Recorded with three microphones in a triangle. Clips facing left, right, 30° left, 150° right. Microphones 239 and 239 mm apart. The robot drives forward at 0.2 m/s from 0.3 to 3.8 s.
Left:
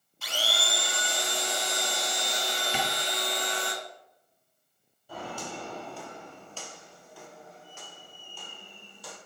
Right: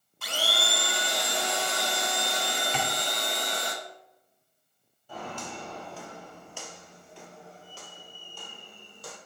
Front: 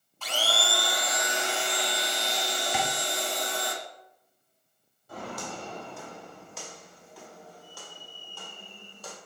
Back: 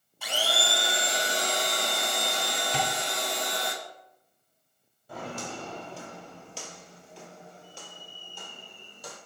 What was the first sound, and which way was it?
A blender, 70° right.